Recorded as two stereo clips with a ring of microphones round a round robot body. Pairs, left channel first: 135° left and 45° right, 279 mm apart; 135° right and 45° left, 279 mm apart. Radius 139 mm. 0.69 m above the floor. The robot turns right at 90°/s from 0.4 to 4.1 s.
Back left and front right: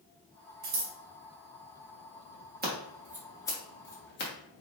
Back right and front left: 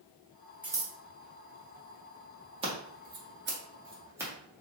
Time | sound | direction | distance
0.6 | scissors | 35° right | 1.2 m
2.6 | scissors | 15° right | 1.4 m